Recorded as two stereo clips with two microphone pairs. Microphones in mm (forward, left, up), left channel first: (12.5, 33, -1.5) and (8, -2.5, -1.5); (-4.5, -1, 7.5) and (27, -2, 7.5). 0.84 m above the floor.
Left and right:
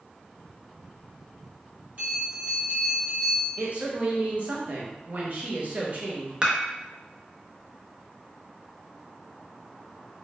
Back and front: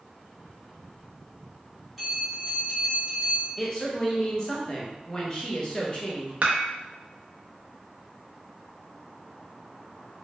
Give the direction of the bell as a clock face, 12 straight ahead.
2 o'clock.